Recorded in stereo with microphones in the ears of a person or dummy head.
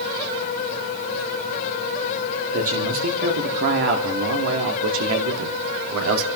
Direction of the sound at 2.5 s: 40° right (ahead or behind).